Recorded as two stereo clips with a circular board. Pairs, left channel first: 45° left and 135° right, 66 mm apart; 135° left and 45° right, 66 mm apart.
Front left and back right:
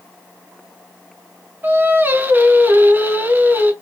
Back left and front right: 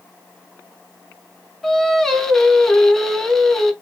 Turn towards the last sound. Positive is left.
turn(degrees=-145)